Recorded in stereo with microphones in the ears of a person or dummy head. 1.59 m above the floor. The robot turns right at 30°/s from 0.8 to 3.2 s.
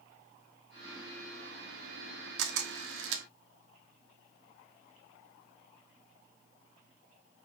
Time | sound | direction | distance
2.4 | a camera shutter | 65° right (ahead or behind) | 0.7 m